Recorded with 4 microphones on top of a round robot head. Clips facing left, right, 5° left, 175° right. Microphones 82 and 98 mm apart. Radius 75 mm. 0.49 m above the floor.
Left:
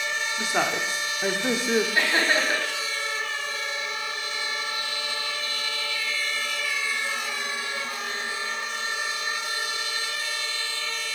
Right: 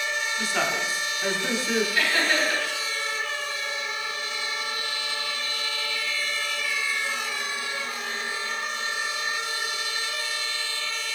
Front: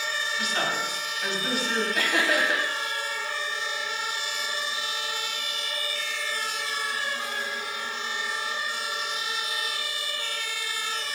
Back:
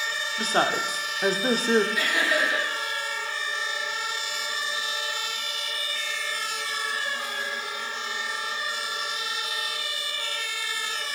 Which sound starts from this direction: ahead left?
Laughter, at 1.9 s.